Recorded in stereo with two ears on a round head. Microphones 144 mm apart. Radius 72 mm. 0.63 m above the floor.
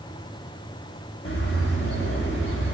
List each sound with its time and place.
1.2 s a bird: 75° left (ahead or behind), 0.9 m